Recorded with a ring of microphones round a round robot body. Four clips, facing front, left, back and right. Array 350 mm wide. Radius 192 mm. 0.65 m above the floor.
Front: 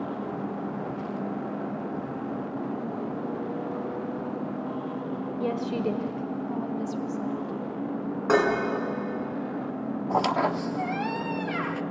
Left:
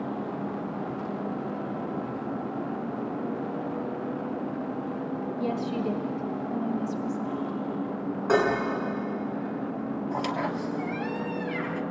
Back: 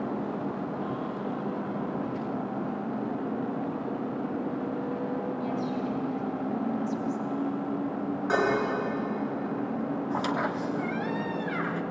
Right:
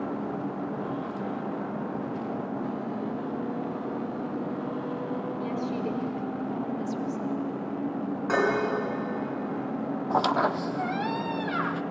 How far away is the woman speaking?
About 2.5 m.